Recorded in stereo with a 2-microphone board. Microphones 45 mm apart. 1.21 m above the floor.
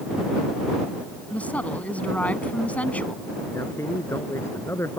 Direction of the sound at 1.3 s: 30° left (ahead or behind).